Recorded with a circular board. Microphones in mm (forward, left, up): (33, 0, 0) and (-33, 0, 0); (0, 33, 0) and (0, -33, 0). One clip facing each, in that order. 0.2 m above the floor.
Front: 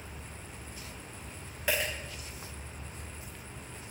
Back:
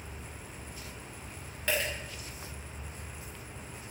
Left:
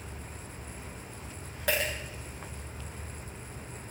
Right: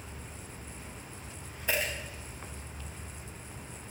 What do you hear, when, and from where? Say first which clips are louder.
1.7 s a dropped coin: even, left 2 dB; 80° left, 8.5 m